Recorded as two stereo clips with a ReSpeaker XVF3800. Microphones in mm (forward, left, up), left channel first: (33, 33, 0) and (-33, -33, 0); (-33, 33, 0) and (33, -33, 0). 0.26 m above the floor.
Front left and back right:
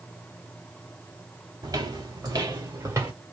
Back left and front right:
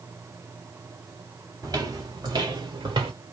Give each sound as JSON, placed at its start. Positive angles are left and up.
{"t": 1.6, "sound": "footsteps", "azimuth_deg": -95, "distance_m": 2.5}